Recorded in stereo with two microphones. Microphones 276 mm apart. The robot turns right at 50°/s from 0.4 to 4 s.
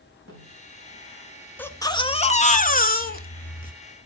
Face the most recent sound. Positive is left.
turn(degrees=135)